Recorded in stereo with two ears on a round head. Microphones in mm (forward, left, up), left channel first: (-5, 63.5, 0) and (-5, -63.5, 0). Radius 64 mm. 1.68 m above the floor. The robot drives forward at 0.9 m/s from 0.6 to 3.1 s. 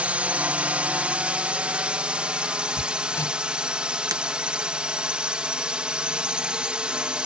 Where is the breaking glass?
25° right (ahead or behind).